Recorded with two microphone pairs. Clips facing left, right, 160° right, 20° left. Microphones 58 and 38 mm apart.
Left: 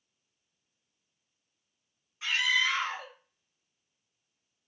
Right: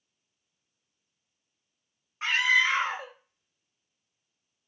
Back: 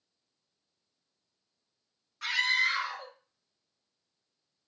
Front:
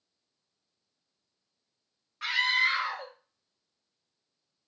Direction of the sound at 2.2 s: 50° right.